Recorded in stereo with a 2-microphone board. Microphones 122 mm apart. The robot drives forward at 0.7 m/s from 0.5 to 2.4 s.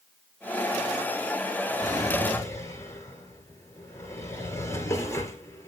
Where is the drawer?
30° left (ahead or behind), 1.1 m; by 5.7 s 25° left (ahead or behind), 1.5 m.